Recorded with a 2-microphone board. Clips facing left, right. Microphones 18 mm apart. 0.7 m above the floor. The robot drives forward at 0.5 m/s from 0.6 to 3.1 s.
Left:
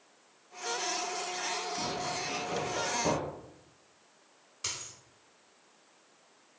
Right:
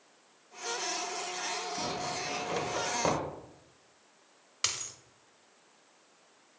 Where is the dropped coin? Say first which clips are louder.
Right 5 dB; 50° right (ahead or behind), 0.6 m.